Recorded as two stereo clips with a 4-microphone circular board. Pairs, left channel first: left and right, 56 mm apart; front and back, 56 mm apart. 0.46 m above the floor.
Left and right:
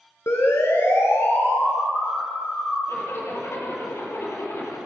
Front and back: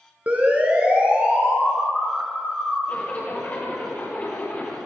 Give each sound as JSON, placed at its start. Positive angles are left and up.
{"t": 0.3, "sound": "a siren", "azimuth_deg": 120, "distance_m": 5.0}
{"t": 2.9, "sound": "a zipper", "azimuth_deg": 60, "distance_m": 8.0}